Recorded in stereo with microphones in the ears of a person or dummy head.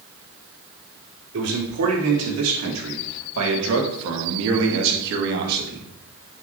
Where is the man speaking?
85° right, 4.5 m; by 5.9 s 50° right (ahead or behind), 2.5 m.